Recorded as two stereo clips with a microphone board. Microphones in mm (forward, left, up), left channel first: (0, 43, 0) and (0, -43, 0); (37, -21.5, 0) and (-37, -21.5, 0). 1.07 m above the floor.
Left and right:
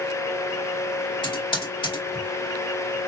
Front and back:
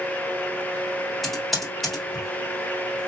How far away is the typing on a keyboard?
About 1.7 m.